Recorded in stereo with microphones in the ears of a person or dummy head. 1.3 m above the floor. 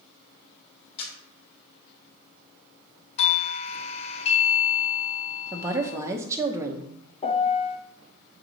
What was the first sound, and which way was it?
A camera shutter, 40° left (ahead or behind).